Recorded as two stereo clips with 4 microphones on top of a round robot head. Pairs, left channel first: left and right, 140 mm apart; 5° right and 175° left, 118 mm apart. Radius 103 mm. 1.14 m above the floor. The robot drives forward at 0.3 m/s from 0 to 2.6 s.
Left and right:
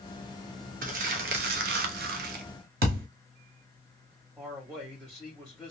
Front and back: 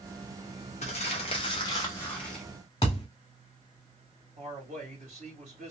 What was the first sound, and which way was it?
Crumpling, 50° right.